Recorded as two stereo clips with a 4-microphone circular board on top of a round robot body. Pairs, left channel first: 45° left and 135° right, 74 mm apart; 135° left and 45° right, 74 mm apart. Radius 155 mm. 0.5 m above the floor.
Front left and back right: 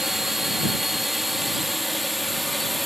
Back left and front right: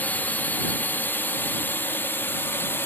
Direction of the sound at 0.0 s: 145° left.